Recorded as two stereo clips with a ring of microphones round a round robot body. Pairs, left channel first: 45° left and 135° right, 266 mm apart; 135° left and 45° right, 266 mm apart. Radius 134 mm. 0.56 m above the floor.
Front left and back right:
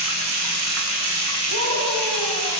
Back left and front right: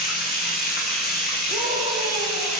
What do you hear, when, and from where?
0.0 s running water: 165° right, 5 m
1.5 s a scream: 120° right, 6.5 m